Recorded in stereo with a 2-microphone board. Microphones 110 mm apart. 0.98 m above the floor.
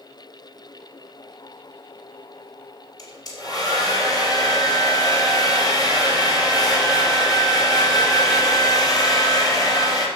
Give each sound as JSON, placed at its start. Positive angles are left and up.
{"t": 3.0, "sound": "a hair dryer", "side_deg": 35, "distance_m": 2.5}